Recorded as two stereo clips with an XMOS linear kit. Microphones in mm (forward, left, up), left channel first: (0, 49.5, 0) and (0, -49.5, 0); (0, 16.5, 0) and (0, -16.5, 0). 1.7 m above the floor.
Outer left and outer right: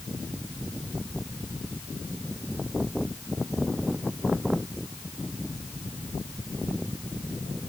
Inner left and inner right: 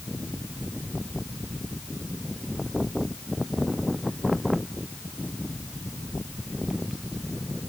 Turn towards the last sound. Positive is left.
No sound to turn to.